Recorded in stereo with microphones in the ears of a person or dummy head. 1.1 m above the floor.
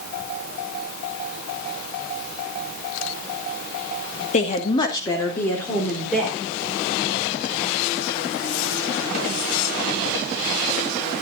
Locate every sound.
4.3 s a woman speaking: 40° left (ahead or behind), 1.8 m; by 6.4 s centre (ahead or behind), 4 m